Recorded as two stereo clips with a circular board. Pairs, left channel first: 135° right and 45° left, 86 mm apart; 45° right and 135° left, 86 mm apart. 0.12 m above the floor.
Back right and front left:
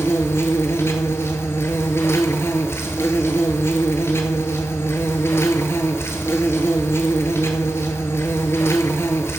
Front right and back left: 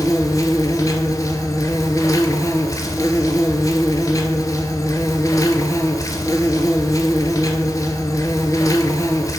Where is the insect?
85° right, 0.8 m.